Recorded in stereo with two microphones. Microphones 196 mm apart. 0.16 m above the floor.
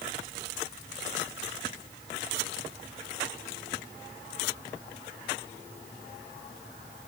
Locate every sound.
Only background noise.